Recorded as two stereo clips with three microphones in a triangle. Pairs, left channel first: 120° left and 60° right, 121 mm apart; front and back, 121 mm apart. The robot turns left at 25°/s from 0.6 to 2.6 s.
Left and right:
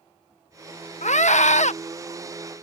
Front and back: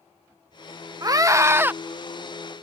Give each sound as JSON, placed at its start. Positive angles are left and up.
{"t": 1.0, "sound": "a scream", "azimuth_deg": 125}